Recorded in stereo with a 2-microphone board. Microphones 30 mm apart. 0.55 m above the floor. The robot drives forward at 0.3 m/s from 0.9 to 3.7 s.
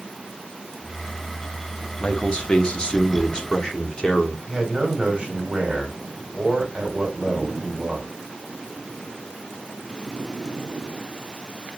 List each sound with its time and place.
2.0 s a man speaking: 35° left (ahead or behind), 0.8 m; by 4.4 s 30° left (ahead or behind), 1.0 m
4.5 s a man speaking: 25° right (ahead or behind), 2 m